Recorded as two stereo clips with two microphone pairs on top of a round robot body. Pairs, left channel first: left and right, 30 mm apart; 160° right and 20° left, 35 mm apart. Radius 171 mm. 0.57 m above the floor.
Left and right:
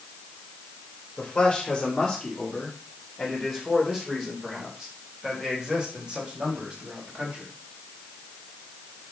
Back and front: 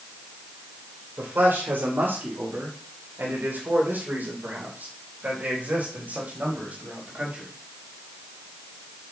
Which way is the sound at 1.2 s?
20° left.